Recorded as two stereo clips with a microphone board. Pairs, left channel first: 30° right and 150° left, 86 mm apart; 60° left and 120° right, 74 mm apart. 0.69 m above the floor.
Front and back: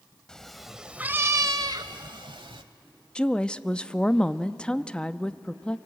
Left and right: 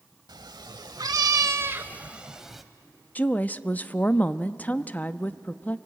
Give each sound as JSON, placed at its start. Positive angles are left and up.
{"t": 0.3, "sound": "a cat meowing", "azimuth_deg": -110, "distance_m": 1.0}
{"t": 3.1, "sound": "a woman speaking", "azimuth_deg": 30, "distance_m": 0.5}